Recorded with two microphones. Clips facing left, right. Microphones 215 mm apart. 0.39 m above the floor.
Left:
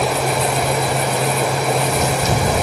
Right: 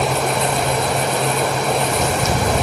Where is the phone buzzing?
I don't hear a phone buzzing.